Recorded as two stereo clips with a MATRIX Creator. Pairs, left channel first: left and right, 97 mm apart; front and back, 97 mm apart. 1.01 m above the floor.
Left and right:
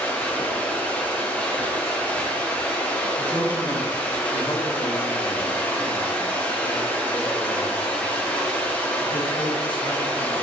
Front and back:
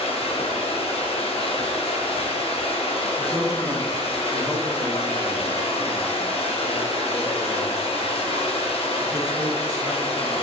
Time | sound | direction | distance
0.0 | running water | 15° left | 0.8 m
3.2 | a man speaking | 120° left | 0.9 m